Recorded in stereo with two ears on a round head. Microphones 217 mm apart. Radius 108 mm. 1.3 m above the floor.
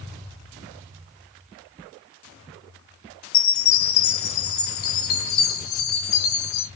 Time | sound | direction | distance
3.3 | a chime | 60° left (ahead or behind) | 1.0 m